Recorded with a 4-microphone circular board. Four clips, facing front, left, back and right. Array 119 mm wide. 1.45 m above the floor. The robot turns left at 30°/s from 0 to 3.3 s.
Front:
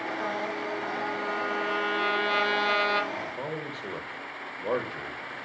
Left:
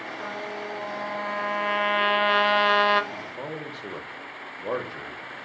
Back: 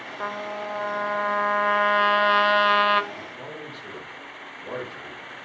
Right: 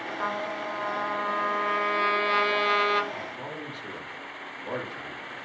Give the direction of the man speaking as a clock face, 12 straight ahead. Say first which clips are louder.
Left 2 dB, front 4 dB; 10 o'clock.